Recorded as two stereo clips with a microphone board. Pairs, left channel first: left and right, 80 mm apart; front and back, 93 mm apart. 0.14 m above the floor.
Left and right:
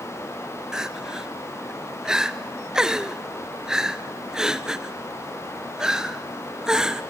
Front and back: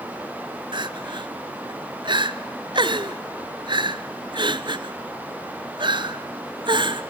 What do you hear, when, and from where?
0.7 s crying: 170° right, 0.9 m